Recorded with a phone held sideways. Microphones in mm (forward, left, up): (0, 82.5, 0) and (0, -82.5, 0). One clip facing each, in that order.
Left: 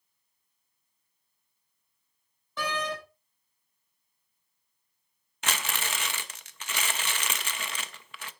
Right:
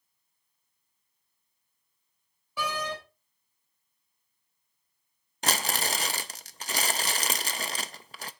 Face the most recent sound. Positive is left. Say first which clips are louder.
# right 4 dB
turn(degrees=-40)  # may be behind; listen again after turning